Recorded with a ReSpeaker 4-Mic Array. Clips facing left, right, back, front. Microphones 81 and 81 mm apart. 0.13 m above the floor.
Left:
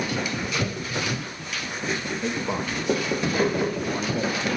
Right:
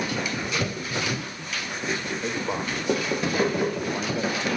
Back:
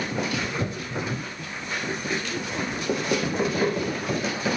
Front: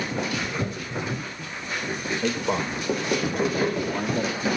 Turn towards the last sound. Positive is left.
turn(degrees=40)